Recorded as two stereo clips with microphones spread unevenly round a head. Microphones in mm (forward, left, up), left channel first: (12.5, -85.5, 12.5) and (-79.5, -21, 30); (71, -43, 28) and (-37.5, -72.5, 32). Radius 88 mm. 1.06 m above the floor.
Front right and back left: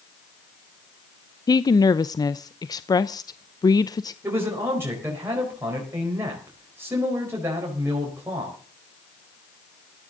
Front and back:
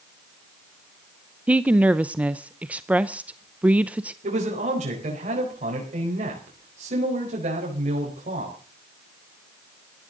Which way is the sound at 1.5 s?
85° right.